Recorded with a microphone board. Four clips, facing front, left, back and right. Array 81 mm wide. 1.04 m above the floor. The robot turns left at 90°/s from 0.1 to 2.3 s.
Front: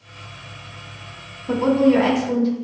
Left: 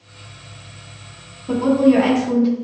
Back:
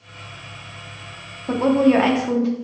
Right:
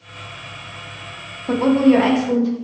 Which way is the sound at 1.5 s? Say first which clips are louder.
Even, even; 130° right.